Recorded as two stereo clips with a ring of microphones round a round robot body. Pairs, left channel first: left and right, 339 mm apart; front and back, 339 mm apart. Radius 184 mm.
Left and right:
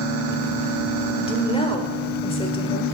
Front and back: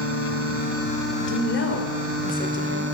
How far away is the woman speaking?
About 1.3 m.